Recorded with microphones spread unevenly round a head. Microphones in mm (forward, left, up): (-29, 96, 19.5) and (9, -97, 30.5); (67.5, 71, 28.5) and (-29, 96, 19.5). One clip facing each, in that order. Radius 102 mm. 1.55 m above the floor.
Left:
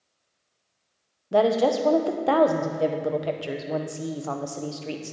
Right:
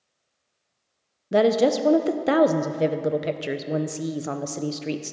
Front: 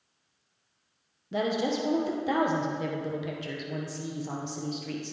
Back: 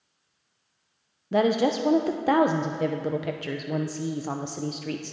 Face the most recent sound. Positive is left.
turn(degrees=-140)